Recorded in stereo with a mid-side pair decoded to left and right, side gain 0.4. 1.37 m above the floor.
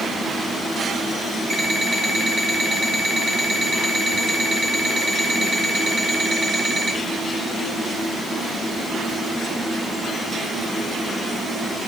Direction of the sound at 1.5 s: 45° right.